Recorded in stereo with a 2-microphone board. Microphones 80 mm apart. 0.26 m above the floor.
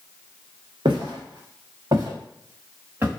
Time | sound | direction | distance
0.8 | footsteps | 80° right | 1.2 m